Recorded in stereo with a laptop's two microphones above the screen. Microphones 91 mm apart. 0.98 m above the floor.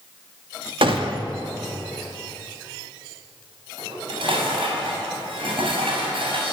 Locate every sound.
0.8 s a gunshot: 70° right (ahead or behind), 2 m
3.8 s dishes clattering: 75° right (ahead or behind), 5.5 m